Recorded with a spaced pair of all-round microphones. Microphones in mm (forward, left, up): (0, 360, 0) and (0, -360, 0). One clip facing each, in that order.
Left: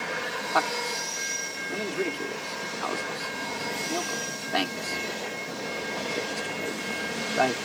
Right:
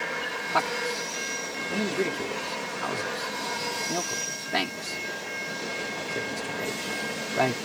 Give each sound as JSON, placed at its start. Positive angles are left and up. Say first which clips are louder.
{"t": 0.5, "sound": "a man speaking", "louder": "right 2 dB", "side_deg": -50}